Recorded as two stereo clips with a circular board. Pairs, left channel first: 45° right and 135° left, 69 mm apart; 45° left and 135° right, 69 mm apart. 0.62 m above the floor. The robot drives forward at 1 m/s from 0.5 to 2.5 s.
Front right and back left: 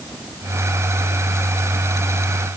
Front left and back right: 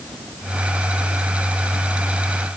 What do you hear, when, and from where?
Only background noise.